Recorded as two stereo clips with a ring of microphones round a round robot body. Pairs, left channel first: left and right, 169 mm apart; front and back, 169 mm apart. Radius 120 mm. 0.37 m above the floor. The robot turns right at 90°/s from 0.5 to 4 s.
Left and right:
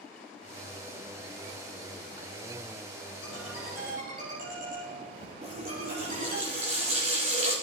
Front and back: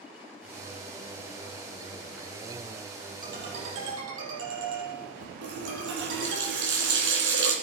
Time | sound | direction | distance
3.2 | a ringtone | 140° left | 4.5 m
5.4 | a running tap | 155° right | 3.5 m